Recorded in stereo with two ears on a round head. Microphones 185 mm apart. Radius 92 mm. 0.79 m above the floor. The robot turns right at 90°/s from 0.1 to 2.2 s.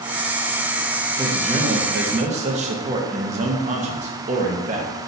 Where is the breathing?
I don't hear breathing.